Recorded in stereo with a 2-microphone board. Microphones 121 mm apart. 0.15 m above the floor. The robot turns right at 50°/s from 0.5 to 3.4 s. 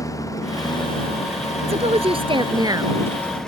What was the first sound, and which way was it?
A lawn mower, 30° left.